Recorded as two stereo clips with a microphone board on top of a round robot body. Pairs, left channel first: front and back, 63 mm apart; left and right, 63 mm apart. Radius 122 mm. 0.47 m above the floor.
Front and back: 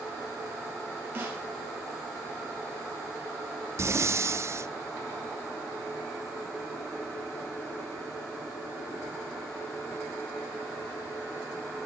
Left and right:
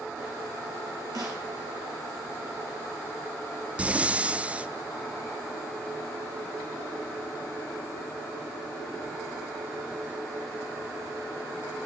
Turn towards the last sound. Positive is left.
turn(degrees=-155)